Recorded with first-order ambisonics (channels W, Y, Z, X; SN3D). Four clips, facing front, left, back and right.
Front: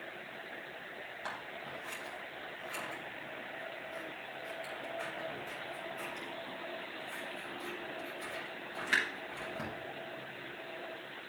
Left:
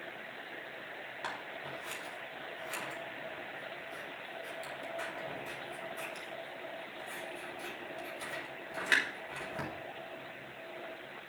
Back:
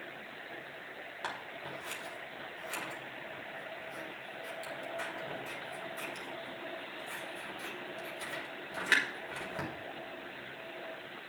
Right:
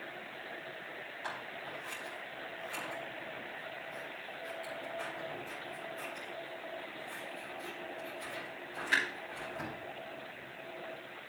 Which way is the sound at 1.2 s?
145° left.